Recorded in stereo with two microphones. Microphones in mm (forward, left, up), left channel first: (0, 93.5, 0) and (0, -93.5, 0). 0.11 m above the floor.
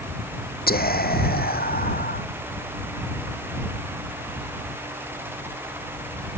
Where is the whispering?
55° left (ahead or behind).